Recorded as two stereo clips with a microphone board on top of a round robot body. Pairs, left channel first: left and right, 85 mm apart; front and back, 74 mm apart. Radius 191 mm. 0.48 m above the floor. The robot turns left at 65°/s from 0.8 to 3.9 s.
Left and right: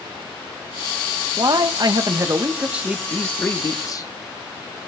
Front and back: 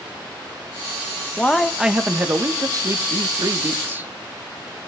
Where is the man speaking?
70° right, 1.2 m; by 4.1 s 125° left, 1.2 m.